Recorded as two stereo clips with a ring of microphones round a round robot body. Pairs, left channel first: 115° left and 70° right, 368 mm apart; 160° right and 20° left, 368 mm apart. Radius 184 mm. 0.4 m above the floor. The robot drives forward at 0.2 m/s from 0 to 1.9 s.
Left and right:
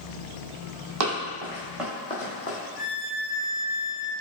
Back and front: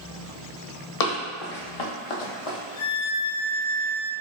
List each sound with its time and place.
1.0 s running footsteps: 115° right, 1.1 m; by 2.6 s 170° left, 0.9 m
2.8 s a violin: 130° right, 1.2 m